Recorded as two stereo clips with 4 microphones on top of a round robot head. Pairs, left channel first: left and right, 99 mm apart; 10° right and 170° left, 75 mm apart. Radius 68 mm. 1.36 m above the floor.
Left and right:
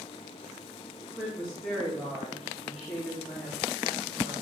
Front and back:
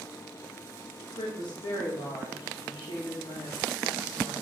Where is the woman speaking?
10° left, 2 m.